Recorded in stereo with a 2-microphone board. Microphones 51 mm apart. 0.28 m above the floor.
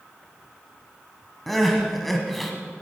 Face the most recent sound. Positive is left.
turn(degrees=0)  # may be behind; listen again after turning